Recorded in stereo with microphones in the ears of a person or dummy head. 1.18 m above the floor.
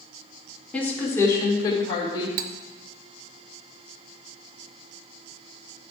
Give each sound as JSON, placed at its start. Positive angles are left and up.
{"t": 0.7, "sound": "a woman speaking", "side_deg": 10, "distance_m": 2.0}
{"t": 2.4, "sound": "cutlery clinking", "side_deg": -55, "distance_m": 0.6}